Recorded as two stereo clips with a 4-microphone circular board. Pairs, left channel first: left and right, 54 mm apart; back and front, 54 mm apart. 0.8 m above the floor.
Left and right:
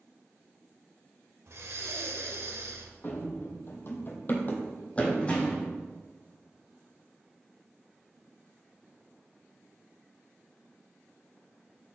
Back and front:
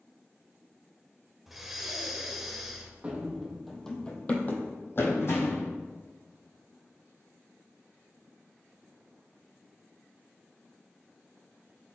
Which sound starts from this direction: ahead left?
Running footsteps, at 3.0 s.